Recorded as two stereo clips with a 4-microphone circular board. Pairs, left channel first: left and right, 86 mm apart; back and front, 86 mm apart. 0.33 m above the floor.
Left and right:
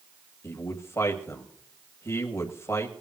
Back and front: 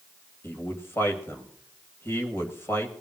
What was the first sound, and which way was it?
A man speaking, 130° left.